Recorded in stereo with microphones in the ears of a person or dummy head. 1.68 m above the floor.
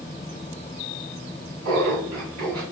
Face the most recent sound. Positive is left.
turn(degrees=-70)  # may be behind; listen again after turning